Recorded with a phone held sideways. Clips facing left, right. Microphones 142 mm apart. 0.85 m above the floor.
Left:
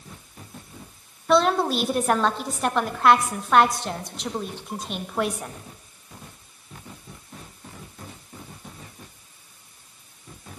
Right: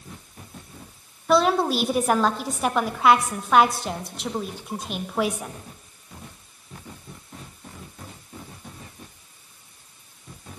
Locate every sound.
1.3 s a woman speaking: 5° right (ahead or behind), 1.2 m